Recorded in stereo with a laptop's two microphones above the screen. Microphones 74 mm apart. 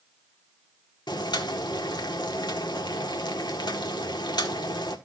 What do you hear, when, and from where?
1.1 s boiling: 75° left (ahead or behind), 1.5 m